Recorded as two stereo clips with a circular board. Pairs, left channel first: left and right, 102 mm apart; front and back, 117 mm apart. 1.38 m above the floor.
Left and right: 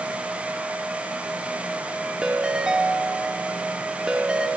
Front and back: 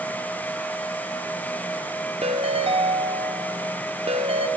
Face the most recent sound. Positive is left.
turn(degrees=-170)